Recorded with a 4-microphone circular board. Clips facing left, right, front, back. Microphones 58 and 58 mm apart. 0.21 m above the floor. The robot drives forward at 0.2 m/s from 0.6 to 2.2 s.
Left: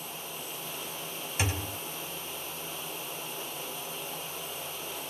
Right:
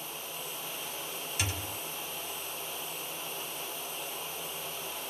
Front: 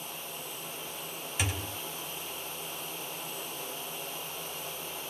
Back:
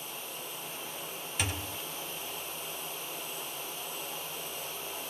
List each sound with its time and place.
1.4 s a thud: 85° left, 0.6 m; by 1.8 s 100° left, 0.6 m